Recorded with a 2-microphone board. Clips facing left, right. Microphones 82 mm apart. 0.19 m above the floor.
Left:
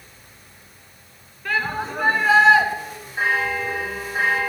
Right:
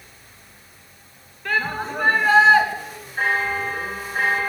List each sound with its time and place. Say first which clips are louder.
1.4 s a shout: even; centre (ahead or behind), 2.5 m
3.2 s a bell: even; 10° left (ahead or behind), 6 m